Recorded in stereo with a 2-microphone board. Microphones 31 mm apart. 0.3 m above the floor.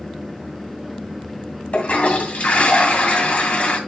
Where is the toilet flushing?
50° left (ahead or behind), 2.0 m.